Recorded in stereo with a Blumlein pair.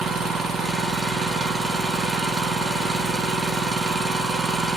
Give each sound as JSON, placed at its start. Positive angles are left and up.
{"t": 0.0, "sound": "an engine running", "azimuth_deg": -15, "distance_m": 0.7}